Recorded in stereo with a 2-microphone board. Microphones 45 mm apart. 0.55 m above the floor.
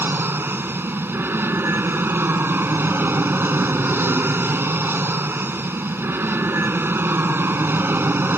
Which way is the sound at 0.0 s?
50° right (ahead or behind).